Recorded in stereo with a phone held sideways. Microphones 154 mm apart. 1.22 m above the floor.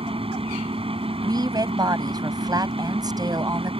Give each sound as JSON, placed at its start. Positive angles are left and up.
{"t": 0.0, "sound": "a fan", "side_deg": -40}
{"t": 1.2, "sound": "a woman speaking", "side_deg": -25}